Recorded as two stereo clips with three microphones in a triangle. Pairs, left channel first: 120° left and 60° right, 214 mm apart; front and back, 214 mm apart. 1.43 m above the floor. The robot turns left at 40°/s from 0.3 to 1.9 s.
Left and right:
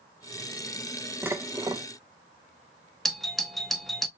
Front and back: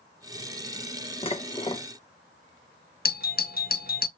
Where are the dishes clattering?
5° left, 0.6 m; by 1.9 s 20° right, 0.6 m.